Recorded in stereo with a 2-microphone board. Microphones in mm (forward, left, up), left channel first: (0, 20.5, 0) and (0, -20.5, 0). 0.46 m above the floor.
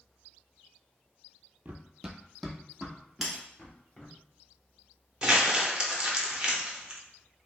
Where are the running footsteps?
45° right (ahead or behind), 0.5 m; by 4.1 s 20° left (ahead or behind), 2.5 m.